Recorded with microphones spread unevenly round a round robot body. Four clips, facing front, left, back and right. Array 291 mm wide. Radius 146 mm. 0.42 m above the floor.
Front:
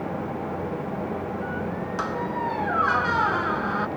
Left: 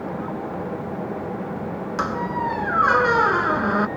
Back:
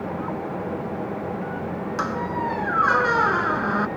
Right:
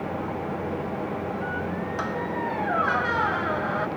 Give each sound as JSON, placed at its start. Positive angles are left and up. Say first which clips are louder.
{"t": 2.0, "sound": "a squeak", "louder": "left 7 dB, back 2 dB", "azimuth_deg": 105}